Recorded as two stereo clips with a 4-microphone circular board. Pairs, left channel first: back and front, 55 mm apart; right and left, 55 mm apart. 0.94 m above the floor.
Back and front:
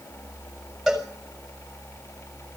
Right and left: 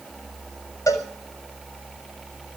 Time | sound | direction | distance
0.9 | a cowbell | 90° right | 5.5 m